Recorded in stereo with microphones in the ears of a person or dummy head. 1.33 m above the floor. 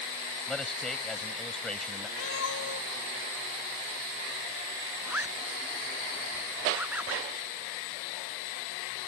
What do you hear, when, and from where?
0.5 s a man speaking: 5° left (ahead or behind)
2.2 s a cat meowing: 75° left (ahead or behind)
5.1 s a zipper: 10° right (ahead or behind)